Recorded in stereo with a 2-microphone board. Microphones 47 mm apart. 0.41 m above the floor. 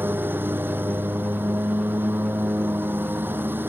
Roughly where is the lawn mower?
Right.